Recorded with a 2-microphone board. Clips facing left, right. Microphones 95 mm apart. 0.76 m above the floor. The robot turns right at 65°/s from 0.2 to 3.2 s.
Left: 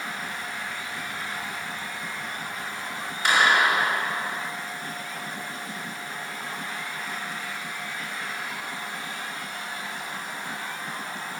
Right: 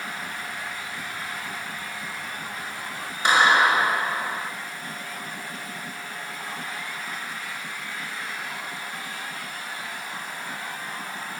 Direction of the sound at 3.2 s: 25° right (ahead or behind).